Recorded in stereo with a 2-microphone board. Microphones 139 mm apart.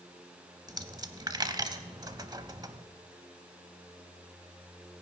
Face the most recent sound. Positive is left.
turn(degrees=-30)  # may be behind; listen again after turning